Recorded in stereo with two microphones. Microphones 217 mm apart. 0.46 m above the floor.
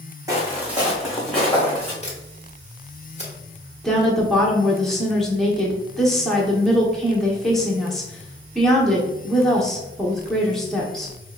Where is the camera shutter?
30° left (ahead or behind), 1.5 m.